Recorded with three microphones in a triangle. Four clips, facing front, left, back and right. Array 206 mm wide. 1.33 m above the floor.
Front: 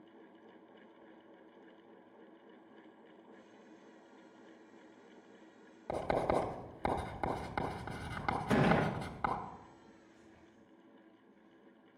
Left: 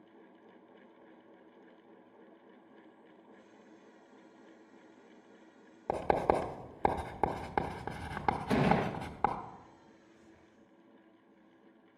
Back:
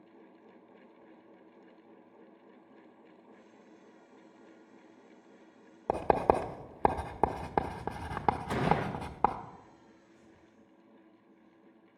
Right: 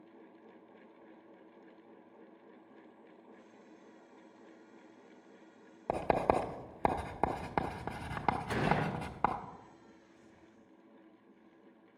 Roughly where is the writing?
Behind.